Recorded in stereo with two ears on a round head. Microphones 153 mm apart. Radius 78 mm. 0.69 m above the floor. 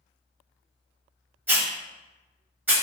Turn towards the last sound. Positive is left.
turn(degrees=-10)  # may be behind; listen again after turning